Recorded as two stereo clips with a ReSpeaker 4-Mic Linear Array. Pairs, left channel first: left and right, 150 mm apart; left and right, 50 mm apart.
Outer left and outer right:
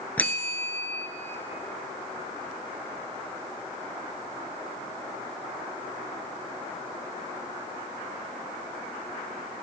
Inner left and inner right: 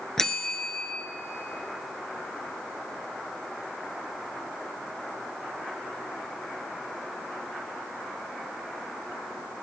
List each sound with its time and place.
0.2 s a bell: 10° left (ahead or behind), 0.7 m